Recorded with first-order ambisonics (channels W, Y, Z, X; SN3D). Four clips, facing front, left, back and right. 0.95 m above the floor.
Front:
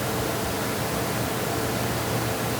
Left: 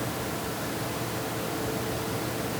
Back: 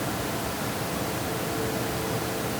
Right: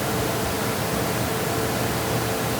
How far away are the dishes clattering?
No dishes clattering in this recording.